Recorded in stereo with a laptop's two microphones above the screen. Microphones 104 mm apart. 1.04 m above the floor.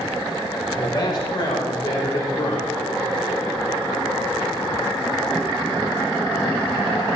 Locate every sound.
0.8 s a man speaking: 45° left (ahead or behind), 4 m